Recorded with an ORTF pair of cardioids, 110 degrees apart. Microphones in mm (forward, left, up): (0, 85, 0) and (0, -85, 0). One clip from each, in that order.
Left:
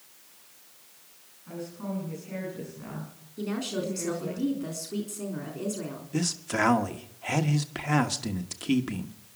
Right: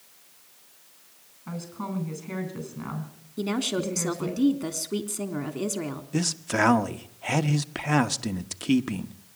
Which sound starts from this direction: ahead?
A man speaking, at 6.1 s.